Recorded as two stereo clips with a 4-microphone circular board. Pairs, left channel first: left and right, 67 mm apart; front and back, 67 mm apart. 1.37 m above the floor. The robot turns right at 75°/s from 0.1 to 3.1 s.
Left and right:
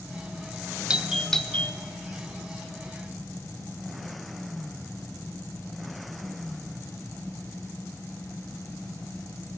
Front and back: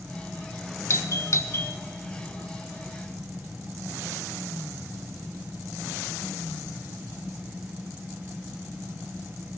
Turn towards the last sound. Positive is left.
turn(degrees=145)